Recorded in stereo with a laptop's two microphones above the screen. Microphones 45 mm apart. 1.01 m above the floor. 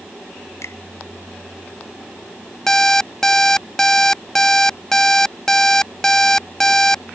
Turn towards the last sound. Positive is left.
turn(degrees=10)  # may be behind; listen again after turning